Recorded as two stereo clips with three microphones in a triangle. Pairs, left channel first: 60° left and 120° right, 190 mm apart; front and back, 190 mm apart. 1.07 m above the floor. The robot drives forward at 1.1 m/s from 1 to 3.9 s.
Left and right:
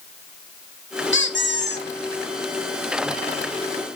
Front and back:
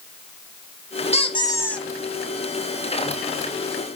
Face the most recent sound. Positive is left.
turn(degrees=150)